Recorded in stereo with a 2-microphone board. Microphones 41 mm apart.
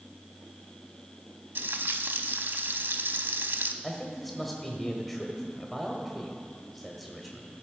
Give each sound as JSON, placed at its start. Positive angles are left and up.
{"t": 1.6, "sound": "frying", "side_deg": -60, "distance_m": 0.6}
{"t": 3.8, "sound": "a man speaking", "side_deg": 5, "distance_m": 1.2}